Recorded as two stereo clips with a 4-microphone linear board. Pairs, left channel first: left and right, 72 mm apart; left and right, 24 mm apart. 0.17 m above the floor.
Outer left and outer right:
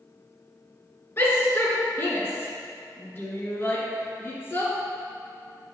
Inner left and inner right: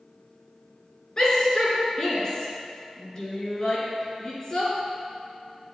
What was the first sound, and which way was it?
A shout, 35° left (ahead or behind).